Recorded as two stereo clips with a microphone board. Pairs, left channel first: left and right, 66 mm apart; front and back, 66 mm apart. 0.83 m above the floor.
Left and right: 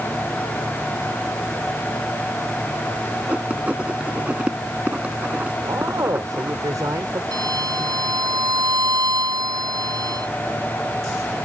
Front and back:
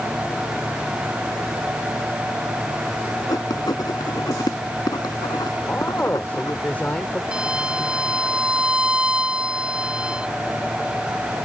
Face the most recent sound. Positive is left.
turn(degrees=-105)